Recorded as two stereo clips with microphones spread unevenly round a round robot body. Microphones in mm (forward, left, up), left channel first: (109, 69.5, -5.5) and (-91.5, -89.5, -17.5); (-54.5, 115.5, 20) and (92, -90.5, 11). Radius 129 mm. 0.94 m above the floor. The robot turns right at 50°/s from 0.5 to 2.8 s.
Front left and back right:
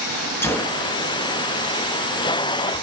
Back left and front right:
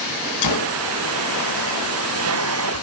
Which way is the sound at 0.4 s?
120° left.